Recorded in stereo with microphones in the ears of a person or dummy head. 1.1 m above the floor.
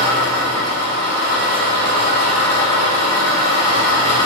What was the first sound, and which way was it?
An engine running, 30° right (ahead or behind).